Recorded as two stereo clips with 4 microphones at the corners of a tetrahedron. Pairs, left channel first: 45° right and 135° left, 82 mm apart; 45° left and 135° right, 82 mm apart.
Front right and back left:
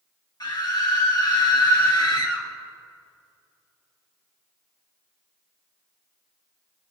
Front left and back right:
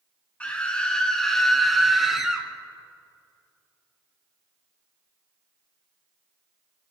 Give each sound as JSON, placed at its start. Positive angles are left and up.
{"t": 0.4, "sound": "a scream", "azimuth_deg": -25, "distance_m": 3.0}